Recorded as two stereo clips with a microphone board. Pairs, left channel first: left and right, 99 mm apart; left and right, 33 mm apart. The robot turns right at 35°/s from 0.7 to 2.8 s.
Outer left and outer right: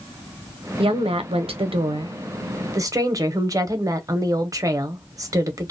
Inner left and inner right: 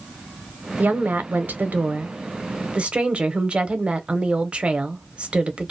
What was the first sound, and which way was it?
A woman speaking, 110° right.